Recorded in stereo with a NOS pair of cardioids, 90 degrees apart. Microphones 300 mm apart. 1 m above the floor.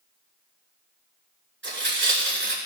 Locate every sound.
1.6 s tearing paper: 35° right, 7 m